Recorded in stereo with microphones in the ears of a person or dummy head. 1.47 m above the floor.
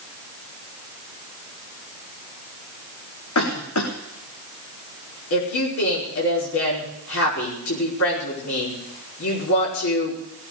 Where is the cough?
80° left, 1.7 m.